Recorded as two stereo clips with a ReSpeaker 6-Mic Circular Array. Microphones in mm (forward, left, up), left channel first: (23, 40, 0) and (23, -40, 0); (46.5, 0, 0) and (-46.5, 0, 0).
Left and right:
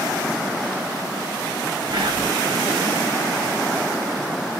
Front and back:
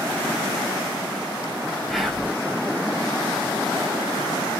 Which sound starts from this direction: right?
Whispering, at 1.9 s.